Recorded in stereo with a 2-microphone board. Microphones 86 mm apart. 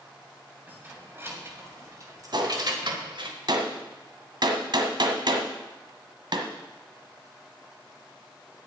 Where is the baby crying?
I don't hear a baby crying.